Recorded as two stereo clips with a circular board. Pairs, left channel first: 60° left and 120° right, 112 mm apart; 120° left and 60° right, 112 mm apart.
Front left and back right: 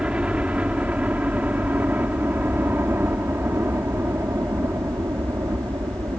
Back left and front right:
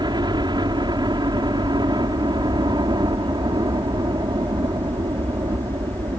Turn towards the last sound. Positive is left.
turn(degrees=-80)